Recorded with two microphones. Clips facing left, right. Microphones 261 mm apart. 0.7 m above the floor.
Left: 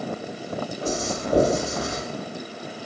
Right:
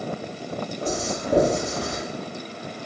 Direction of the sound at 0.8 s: 40° right (ahead or behind).